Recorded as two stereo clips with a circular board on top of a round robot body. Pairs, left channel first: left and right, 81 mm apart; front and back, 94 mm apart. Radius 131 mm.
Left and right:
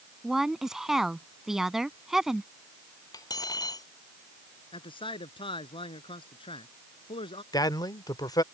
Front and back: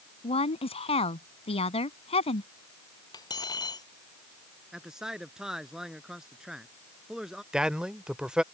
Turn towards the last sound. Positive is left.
turn(degrees=100)